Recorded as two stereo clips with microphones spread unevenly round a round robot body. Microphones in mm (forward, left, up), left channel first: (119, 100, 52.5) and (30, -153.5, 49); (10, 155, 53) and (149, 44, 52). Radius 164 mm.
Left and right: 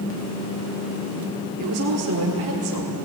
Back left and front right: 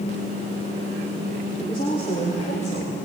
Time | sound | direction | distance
1.6 | a woman speaking | 145° right | 1.5 m